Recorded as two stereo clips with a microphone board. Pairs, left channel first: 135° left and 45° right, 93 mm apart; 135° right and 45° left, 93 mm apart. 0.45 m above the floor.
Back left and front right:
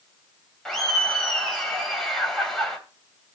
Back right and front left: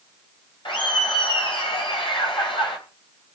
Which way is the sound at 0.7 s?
140° right.